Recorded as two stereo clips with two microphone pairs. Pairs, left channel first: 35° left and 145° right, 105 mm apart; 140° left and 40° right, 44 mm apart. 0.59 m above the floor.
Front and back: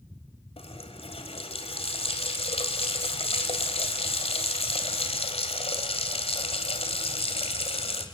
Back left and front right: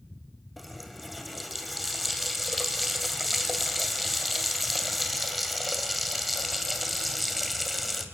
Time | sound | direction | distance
0.6 | a running tap | 50° left | 2.5 m